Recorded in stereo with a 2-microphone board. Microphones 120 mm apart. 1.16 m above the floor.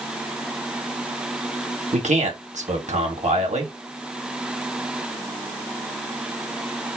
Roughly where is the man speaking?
Right.